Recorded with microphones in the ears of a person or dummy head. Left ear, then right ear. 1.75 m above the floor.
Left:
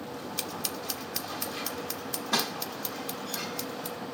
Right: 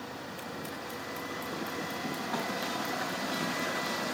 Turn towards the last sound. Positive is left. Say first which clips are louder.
# left 7 dB
turn(degrees=80)